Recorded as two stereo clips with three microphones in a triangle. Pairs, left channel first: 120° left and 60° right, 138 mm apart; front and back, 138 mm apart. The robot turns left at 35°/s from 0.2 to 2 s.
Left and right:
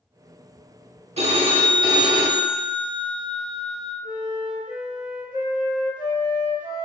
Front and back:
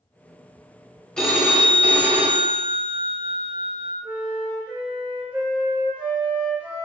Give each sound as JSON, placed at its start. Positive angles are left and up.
{"t": 1.2, "sound": "a phone ringing", "azimuth_deg": -85, "distance_m": 0.7}
{"t": 4.0, "sound": "a flute", "azimuth_deg": -100, "distance_m": 0.9}